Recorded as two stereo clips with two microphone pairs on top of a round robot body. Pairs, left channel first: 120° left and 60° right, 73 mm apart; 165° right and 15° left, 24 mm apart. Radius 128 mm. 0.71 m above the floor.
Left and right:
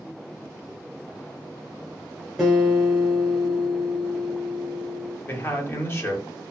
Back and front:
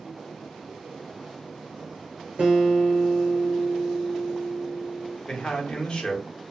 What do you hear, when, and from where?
2.4 s a guitar: 25° left, 0.6 m
5.3 s a man speaking: 175° left, 1.4 m